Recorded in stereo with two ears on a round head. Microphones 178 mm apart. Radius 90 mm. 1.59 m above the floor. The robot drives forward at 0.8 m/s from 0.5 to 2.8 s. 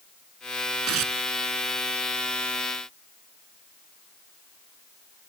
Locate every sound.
0.9 s tearing paper: 85° right